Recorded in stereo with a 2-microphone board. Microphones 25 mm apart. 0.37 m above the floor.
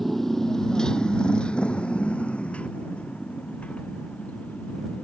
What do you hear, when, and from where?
0.0 s a motorcycle: 5° left (ahead or behind); by 5.0 s 75° left (ahead or behind)